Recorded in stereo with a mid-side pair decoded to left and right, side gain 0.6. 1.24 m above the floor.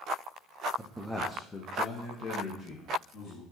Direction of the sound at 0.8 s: 15° right.